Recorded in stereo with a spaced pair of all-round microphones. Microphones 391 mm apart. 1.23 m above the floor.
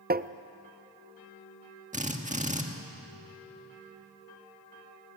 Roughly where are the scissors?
No scissors in this recording.